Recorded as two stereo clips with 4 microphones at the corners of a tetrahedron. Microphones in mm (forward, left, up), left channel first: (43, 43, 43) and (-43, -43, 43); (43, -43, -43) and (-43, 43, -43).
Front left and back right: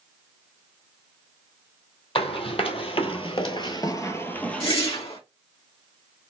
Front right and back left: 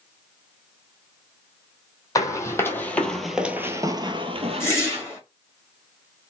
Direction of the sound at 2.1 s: 15° left.